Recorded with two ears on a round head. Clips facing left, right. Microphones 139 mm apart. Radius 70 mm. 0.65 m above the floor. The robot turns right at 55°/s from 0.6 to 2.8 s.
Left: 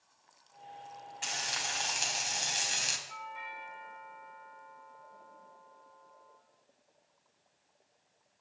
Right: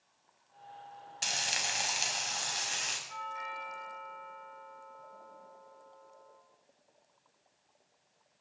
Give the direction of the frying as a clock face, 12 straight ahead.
1 o'clock.